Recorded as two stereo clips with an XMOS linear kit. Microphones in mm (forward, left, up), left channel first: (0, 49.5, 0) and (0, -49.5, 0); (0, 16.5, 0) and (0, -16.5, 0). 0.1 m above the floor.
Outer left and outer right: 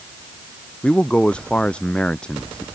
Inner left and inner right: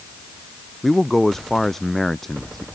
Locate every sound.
0.8 s a man speaking: 10° left (ahead or behind)